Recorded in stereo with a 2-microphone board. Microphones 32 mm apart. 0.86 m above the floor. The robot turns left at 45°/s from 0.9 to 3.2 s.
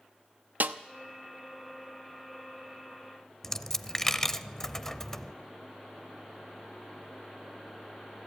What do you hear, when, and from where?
0.6 s a snare drum: 70° right (ahead or behind), 0.8 m
3.4 s a dropped coin: 15° left (ahead or behind), 0.6 m